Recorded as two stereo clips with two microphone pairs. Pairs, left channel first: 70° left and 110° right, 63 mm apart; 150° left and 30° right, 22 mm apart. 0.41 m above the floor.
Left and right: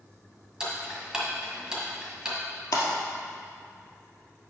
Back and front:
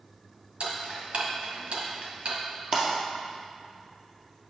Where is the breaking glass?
35° left, 2 m.